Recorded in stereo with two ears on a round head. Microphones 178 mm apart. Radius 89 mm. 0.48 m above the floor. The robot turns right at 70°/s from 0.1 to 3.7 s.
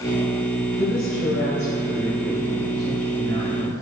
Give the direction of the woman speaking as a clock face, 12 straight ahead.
10 o'clock.